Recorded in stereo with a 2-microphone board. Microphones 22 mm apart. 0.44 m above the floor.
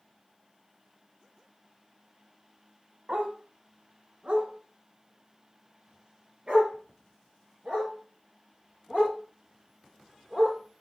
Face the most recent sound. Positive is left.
turn(degrees=-55)  # may be behind; listen again after turning